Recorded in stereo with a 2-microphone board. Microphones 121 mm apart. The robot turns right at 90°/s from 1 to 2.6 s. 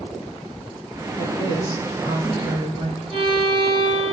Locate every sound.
1.2 s a woman speaking: 110° left, 2.5 m; by 3.0 s 120° right, 2.5 m
3.1 s a violin: 5° left (ahead or behind), 4 m